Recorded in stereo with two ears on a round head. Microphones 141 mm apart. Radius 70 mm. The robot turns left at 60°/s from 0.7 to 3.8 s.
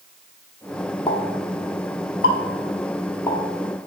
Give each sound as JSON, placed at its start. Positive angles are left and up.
{"t": 1.1, "sound": "a pop", "side_deg": 25, "distance_m": 1.1}